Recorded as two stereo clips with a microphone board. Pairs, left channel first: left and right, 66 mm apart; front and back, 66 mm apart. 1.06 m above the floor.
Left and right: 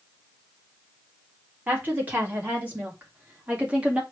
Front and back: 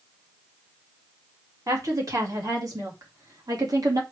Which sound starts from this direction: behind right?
A woman speaking, at 1.7 s.